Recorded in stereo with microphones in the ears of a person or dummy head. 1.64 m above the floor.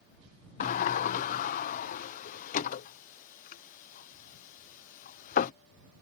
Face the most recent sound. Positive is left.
turn(degrees=50)  # may be behind; listen again after turning